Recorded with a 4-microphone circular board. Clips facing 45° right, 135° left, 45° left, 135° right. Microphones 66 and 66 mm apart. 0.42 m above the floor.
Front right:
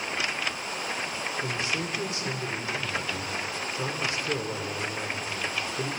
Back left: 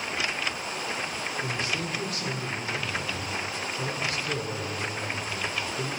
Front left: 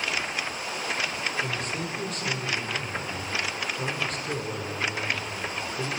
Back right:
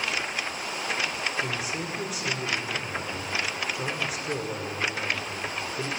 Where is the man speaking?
65° right, 1.4 m.